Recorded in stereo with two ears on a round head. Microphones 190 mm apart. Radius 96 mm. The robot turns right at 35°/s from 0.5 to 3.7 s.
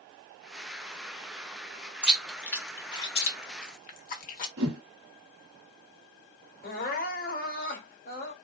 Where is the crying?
45° left (ahead or behind), 1.6 m.